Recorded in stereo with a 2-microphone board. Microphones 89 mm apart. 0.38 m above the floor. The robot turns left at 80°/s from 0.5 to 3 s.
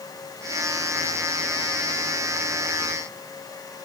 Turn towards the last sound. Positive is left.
No sound to turn to.